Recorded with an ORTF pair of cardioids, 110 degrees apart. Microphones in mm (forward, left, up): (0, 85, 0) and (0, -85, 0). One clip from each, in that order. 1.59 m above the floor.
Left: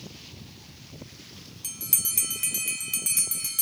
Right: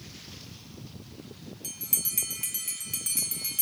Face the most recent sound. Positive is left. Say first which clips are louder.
# left 3 dB
turn(degrees=20)